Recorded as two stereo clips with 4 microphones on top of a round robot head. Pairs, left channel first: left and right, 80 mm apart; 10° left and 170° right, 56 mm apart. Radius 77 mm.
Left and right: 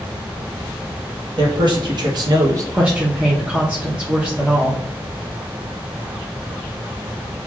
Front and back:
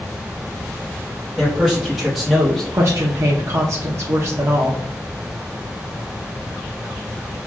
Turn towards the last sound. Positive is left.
turn(degrees=-160)